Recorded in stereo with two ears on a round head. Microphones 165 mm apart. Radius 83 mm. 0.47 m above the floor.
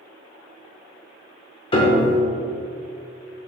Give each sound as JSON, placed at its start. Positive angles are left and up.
{"t": 1.7, "sound": "a piano", "side_deg": 30, "distance_m": 1.0}